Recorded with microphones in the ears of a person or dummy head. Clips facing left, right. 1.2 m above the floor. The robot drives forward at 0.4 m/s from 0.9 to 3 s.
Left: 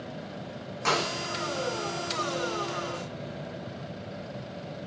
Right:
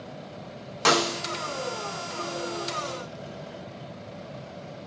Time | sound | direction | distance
0.8 | a snare drum | 80° right | 1.3 m